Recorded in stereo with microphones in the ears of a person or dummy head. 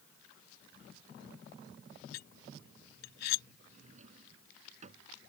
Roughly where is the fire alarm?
I don't hear a fire alarm.